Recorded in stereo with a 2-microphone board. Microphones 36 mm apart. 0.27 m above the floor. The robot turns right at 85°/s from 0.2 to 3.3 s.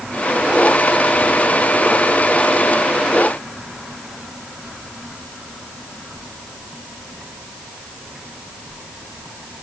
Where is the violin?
I don't hear a violin.